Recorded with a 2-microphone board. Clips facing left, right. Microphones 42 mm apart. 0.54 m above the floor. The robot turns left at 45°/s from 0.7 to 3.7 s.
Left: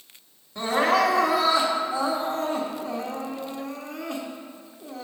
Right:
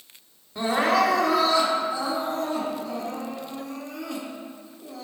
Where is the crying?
170° right, 1.4 m; by 5.1 s 55° left, 1.4 m.